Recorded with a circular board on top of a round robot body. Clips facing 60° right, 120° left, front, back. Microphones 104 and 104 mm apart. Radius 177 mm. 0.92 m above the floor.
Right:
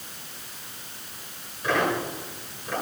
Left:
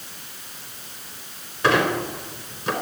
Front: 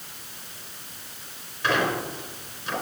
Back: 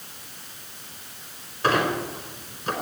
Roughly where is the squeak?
Behind left.